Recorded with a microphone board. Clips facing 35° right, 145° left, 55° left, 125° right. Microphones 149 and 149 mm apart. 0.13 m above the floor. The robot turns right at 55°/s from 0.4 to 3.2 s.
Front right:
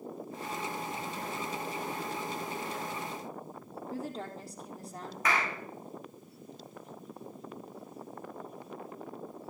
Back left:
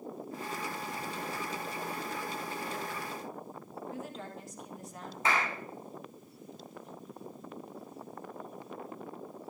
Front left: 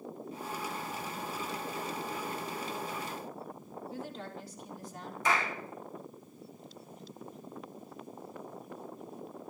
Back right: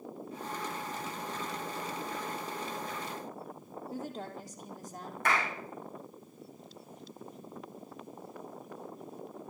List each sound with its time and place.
3.9 s a woman speaking: 85° right, 3.5 m
5.2 s a clap: 150° right, 5.5 m